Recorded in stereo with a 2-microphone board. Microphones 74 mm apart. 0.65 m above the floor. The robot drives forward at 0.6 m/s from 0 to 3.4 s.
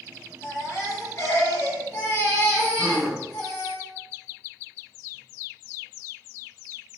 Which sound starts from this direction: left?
A baby crying, at 0.4 s.